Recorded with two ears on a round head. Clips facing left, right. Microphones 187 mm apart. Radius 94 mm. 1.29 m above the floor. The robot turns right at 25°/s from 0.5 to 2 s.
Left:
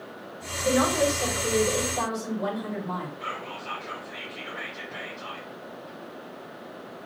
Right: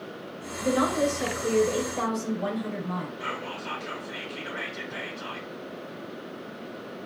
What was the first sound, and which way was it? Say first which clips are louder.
A woman speaking: left 1 dB; 35° right.